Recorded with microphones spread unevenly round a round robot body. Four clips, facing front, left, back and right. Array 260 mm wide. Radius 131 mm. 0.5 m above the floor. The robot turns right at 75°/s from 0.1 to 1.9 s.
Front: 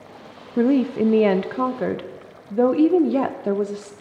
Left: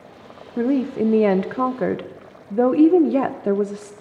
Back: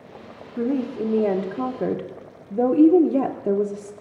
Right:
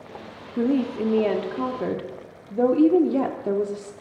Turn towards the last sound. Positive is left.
turn(degrees=130)